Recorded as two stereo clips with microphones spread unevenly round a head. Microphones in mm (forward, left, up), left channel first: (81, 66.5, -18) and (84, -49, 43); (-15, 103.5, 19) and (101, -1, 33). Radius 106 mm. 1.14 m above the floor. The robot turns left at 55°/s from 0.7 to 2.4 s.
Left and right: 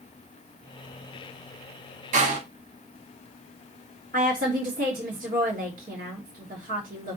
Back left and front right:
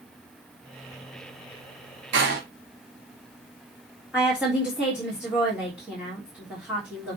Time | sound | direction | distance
2.1 | a door slam | 80° right | 1.8 m
4.1 | a woman speaking | 125° right | 3 m